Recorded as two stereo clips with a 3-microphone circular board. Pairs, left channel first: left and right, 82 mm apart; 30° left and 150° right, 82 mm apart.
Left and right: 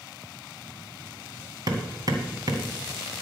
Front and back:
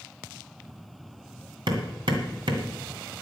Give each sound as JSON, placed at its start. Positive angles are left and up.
{"t": 1.7, "sound": "hammering", "azimuth_deg": -130, "distance_m": 2.0}